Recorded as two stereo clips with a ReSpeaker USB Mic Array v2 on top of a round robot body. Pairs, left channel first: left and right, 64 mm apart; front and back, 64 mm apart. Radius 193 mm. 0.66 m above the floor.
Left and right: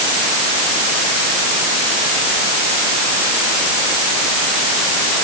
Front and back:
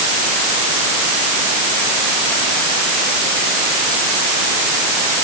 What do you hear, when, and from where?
Only background noise.